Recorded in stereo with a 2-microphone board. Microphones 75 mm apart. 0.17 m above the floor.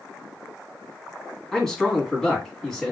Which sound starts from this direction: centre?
A man speaking, at 1.5 s.